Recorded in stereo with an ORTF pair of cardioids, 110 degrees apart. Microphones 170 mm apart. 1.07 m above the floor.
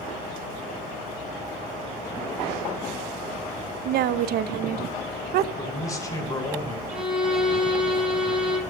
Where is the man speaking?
20° left, 4 m.